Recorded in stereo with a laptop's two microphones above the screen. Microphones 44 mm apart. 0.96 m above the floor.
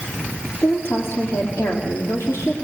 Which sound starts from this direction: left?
A woman speaking, at 0.6 s.